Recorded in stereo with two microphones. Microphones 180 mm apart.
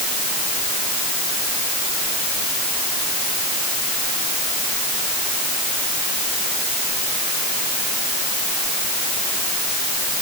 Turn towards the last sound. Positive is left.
No sound to turn to.